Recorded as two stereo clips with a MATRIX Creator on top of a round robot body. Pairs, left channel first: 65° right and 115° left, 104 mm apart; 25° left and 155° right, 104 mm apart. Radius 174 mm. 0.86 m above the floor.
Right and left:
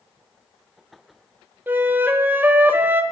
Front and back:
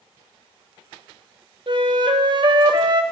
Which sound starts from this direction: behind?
A flute, at 1.7 s.